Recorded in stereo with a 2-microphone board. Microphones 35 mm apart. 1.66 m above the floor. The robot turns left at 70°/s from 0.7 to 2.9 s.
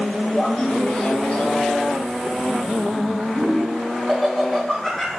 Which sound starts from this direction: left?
Laughter, at 0.3 s.